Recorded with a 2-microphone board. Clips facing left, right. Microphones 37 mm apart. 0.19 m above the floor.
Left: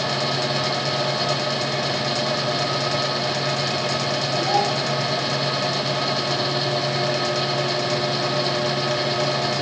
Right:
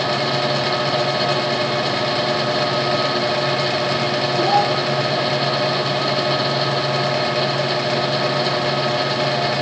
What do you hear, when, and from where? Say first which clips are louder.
4.4 s a child speaking: right 5 dB; 50° right (ahead or behind), 4.5 m